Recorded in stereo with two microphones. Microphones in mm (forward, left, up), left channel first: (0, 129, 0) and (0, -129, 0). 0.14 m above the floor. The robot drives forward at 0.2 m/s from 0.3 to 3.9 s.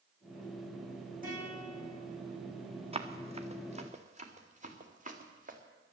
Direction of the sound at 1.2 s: 30° right (ahead or behind).